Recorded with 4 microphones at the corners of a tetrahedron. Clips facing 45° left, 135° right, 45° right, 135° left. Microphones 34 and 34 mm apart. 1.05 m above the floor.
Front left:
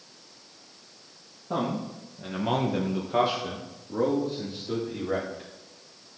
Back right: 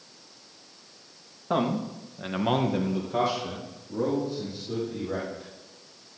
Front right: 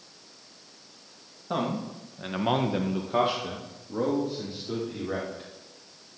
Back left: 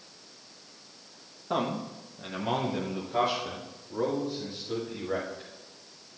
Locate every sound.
1.5 s a man speaking: 135° right, 1.6 m; by 5.5 s 15° left, 4 m